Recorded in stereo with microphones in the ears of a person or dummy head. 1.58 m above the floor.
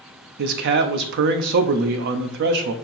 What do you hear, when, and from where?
0.4 s a man speaking: 55° right (ahead or behind), 0.6 m